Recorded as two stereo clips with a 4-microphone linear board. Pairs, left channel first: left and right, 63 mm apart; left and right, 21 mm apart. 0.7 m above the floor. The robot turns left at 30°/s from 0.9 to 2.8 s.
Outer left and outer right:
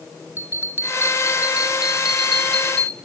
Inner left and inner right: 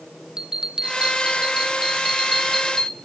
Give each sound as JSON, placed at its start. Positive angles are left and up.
{"t": 0.4, "sound": "a bell", "azimuth_deg": -140, "distance_m": 0.7}